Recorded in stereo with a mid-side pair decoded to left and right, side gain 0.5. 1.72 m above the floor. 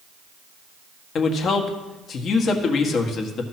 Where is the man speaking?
55° left, 1.6 m.